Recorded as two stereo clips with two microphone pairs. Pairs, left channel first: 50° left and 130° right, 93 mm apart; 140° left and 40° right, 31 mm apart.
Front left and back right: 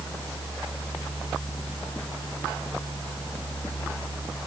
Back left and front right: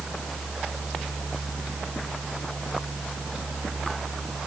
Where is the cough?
No cough in this recording.